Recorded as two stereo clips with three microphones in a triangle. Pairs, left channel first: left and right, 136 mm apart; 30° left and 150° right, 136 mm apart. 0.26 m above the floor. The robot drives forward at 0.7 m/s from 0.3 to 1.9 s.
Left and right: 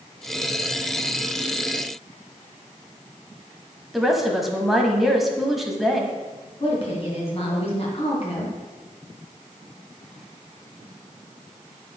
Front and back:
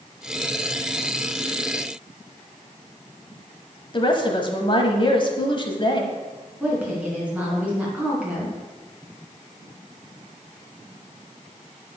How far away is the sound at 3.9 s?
About 1.2 m.